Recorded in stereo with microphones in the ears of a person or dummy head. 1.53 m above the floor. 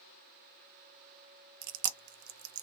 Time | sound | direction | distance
1.6 | chewing | 60° right (ahead or behind) | 0.6 m